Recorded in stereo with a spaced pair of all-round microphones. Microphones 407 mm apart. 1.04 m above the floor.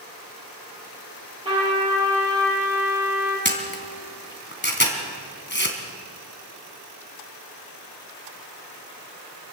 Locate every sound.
1.4 s a trumpet: 15° right (ahead or behind), 8 m
3.5 s a camera shutter: 25° left (ahead or behind), 2.5 m